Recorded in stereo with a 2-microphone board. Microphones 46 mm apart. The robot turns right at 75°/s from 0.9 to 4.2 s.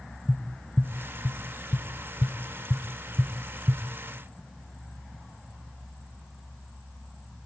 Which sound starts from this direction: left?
Tapping, at 0.3 s.